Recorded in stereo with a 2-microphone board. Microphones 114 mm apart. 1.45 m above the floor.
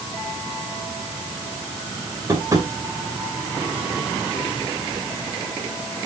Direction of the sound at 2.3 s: 30° right (ahead or behind).